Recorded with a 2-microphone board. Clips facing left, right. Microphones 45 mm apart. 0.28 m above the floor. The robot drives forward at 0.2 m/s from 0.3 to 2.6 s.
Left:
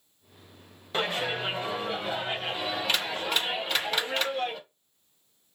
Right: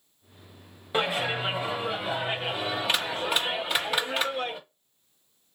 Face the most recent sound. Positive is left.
turn(degrees=-10)  # may be behind; listen again after turning